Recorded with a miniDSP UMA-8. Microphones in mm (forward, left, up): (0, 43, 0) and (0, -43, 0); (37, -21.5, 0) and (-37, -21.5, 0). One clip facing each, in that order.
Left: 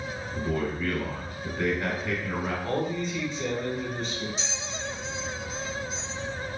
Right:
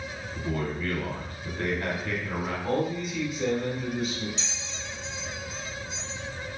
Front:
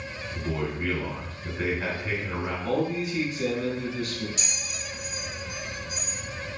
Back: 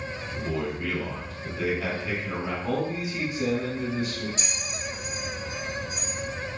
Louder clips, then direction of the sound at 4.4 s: Left 4 dB, back 3 dB; 145° left.